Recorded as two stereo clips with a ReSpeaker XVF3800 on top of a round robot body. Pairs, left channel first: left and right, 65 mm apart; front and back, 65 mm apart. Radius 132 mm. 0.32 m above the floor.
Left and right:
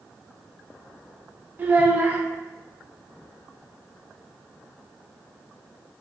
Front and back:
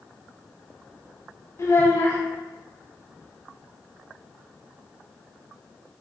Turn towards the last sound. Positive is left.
turn(degrees=-35)